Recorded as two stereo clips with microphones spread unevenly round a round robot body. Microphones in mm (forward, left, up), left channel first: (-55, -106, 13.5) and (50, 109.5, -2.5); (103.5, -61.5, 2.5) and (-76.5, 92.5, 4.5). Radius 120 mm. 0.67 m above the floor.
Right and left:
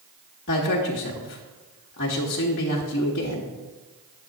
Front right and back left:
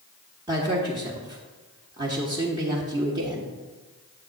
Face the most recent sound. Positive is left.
turn(degrees=-150)